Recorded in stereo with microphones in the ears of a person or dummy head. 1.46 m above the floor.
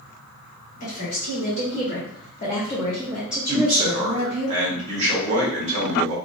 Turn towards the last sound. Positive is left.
turn(degrees=-30)  # may be behind; listen again after turning